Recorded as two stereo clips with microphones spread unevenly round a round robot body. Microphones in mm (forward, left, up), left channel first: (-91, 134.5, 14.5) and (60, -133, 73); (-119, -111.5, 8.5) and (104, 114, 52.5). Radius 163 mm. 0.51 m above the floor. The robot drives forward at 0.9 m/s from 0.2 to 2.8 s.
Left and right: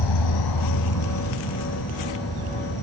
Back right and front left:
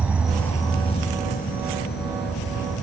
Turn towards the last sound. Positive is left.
turn(degrees=165)